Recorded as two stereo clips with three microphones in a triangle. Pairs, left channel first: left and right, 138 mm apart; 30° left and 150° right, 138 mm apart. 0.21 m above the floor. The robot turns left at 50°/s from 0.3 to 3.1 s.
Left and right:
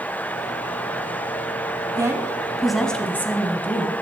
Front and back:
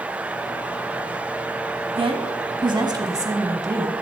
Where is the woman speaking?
140° right, 1.3 m; by 3.9 s 160° left, 1.3 m.